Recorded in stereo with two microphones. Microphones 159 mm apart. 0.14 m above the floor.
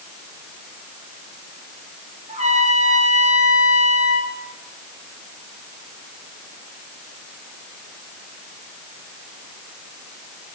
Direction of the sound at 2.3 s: 45° right (ahead or behind).